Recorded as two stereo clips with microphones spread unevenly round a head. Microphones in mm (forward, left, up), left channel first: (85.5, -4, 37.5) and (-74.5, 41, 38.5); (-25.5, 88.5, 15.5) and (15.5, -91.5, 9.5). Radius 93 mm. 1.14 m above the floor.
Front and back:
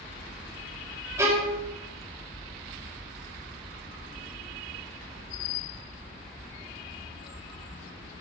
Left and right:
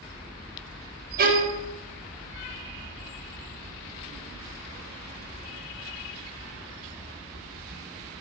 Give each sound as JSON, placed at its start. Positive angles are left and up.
{"t": 1.2, "sound": "a violin", "azimuth_deg": -120, "distance_m": 3.5}